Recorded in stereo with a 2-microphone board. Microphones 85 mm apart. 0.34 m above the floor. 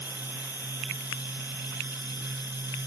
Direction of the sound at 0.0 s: 55° left (ahead or behind).